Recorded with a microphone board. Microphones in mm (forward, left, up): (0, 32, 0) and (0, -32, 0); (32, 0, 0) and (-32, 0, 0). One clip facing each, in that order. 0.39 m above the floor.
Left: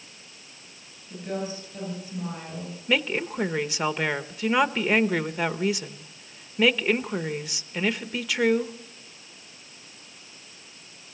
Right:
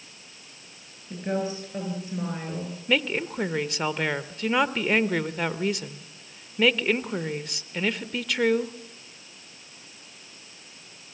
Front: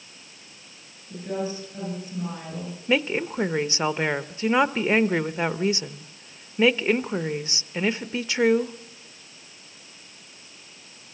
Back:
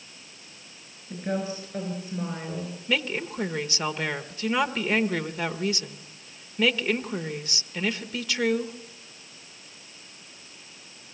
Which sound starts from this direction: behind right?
A woman speaking, at 1.1 s.